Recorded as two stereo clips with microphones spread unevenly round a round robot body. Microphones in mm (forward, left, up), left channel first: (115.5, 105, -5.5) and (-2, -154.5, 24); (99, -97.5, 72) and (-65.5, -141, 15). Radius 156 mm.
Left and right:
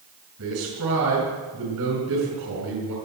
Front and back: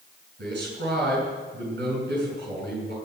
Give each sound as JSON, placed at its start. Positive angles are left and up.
{"t": 0.4, "sound": "a man speaking", "azimuth_deg": -160, "distance_m": 6.5}